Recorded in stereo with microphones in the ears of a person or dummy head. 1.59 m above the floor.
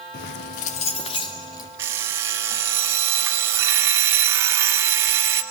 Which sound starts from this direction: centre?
An alarm clock, at 1.8 s.